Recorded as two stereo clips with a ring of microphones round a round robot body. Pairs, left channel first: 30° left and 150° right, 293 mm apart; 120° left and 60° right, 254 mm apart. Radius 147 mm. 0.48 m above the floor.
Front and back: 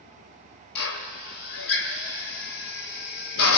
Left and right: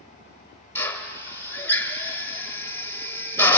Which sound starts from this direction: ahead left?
A drill, at 0.8 s.